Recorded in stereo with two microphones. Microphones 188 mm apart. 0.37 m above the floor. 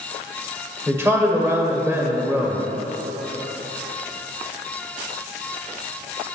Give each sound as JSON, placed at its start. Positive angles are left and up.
{"t": 0.9, "sound": "a man speaking", "side_deg": -15, "distance_m": 1.3}